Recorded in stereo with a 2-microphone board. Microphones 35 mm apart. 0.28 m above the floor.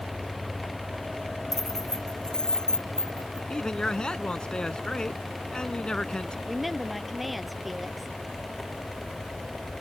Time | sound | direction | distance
1.5 | keys jangling | 10° left (ahead or behind) | ?
3.5 | a man speaking | 25° left (ahead or behind) | ?
6.5 | a woman speaking | centre (ahead or behind) | ?